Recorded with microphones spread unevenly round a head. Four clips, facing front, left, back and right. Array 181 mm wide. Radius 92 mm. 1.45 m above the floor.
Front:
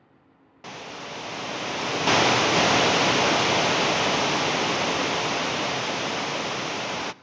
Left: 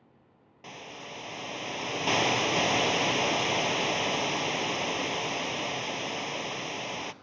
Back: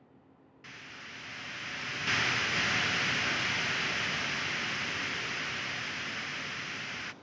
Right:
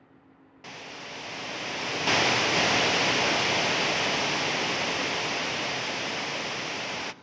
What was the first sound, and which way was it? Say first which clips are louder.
A hiss: right 1 dB, front 13 dB; straight ahead.